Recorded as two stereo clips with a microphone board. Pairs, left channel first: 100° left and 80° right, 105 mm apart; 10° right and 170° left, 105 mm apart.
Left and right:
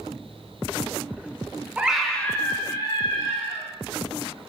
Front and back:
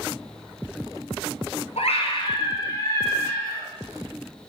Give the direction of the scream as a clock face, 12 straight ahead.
12 o'clock.